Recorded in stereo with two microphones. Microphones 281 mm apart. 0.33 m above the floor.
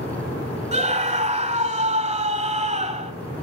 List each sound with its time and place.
0.7 s a scream: 25° right (ahead or behind), 1.6 m